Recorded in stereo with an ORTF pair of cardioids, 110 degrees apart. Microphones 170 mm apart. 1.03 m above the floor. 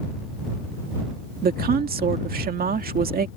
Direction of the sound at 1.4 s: 60° right.